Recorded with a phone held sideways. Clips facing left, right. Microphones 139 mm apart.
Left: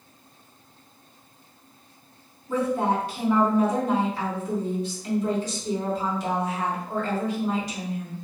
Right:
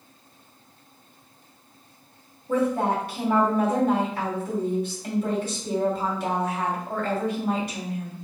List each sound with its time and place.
2.5 s a woman speaking: 55° right (ahead or behind), 2.5 m